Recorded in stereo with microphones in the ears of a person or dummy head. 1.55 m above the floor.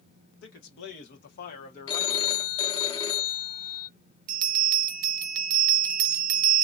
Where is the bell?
50° right (ahead or behind), 0.5 m.